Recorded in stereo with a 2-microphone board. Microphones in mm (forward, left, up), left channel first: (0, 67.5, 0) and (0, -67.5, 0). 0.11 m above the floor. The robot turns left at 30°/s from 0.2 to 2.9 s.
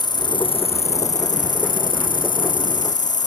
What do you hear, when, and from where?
0.0 s an insect: 150° left; by 3.3 s 65° left